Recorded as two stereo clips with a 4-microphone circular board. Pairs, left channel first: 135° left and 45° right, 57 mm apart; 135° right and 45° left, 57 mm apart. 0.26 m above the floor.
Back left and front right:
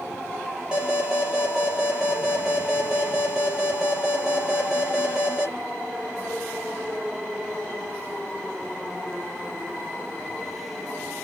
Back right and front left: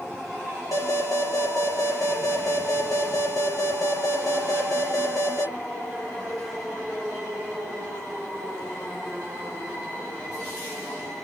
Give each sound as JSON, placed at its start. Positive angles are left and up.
{"t": 0.7, "sound": "an alarm", "azimuth_deg": -115, "distance_m": 4.5}